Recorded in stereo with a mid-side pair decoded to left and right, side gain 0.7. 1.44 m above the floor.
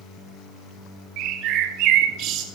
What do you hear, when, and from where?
1.2 s a bird: 60° right, 1.6 m